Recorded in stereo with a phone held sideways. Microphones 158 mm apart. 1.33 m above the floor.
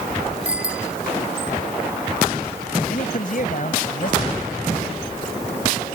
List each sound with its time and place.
0.5 s a bicycle bell: 10° right (ahead or behind)
2.9 s a man speaking: 55° left (ahead or behind)